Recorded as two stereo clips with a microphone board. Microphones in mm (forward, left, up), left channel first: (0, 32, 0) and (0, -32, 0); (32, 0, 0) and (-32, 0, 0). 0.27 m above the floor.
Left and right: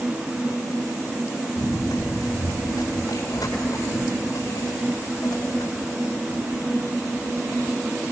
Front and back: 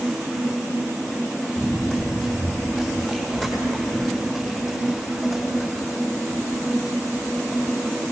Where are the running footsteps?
85° left, 8 m.